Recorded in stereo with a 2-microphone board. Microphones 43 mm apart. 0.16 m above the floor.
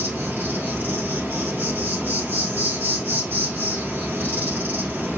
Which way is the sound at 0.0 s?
45° right (ahead or behind).